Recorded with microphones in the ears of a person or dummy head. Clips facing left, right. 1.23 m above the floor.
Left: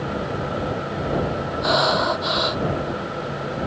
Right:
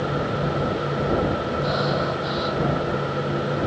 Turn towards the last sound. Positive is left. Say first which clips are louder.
# left 6 dB
turn(degrees=90)